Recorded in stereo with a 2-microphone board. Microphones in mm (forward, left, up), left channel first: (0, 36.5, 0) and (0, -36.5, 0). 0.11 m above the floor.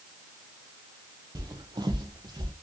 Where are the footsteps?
60° right (ahead or behind), 0.8 m; by 2.5 s 80° right, 1.0 m.